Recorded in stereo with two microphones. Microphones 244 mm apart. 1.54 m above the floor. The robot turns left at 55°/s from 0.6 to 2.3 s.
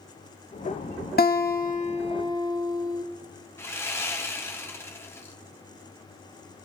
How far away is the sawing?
About 1.5 m.